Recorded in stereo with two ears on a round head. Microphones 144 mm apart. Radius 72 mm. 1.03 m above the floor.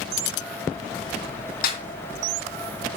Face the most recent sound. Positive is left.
turn(degrees=60)  # may be behind; listen again after turning